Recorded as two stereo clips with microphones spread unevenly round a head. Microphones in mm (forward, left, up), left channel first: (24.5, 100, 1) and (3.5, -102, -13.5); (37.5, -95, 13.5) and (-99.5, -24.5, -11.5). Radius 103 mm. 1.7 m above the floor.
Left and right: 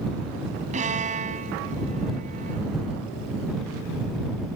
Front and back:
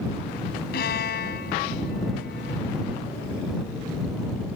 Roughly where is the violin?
Ahead right.